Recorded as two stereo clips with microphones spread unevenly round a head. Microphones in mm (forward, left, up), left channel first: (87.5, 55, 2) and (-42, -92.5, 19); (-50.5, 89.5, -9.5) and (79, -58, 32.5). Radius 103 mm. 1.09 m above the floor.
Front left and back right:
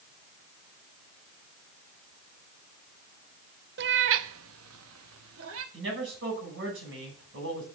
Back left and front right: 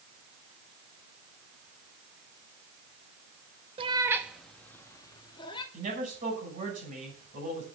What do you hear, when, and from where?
3.8 s a cat meowing: 105° right, 0.6 m; by 5.6 s 160° right, 1.3 m
5.7 s a man speaking: 105° right, 6 m